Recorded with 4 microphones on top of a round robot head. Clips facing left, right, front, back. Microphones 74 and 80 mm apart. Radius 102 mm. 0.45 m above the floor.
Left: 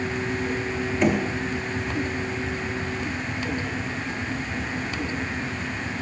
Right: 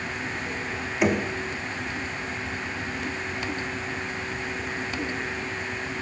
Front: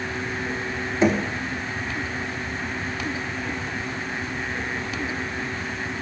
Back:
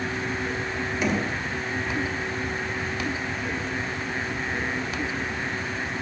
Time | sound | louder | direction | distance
1.0 | knocking | left 1 dB, front 6 dB | 20° right | 1.1 m